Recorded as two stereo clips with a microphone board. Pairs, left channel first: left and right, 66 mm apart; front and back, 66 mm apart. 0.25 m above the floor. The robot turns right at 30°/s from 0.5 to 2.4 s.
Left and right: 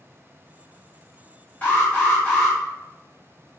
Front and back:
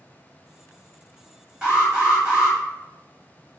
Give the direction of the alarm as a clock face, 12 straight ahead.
8 o'clock.